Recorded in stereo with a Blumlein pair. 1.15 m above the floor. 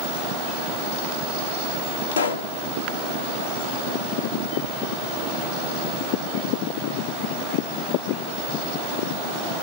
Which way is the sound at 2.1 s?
70° left.